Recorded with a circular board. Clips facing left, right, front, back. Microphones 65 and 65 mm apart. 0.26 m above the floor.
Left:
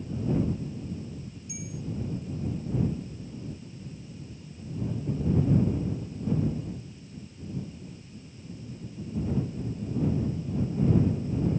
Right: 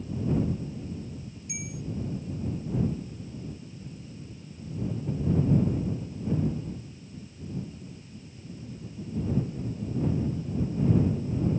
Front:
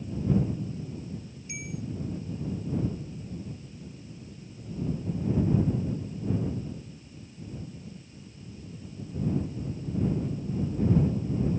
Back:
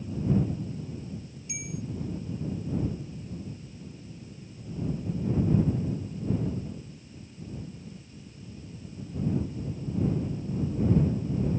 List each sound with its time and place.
1.5 s a bell: 60° right